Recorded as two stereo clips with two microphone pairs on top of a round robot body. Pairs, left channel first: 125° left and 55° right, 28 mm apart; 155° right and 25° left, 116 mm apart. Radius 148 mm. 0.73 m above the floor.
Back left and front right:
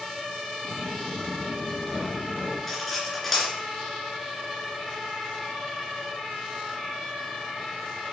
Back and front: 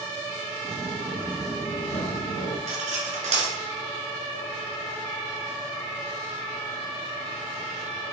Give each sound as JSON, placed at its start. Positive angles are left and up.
{"t": 0.6, "sound": "footsteps", "azimuth_deg": -5, "distance_m": 1.2}
{"t": 2.7, "sound": "cutlery clinking", "azimuth_deg": 40, "distance_m": 2.0}